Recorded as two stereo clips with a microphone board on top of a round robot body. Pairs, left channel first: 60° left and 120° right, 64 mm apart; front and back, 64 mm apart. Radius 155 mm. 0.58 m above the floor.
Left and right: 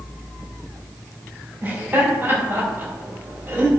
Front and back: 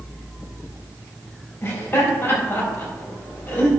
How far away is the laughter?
About 5 m.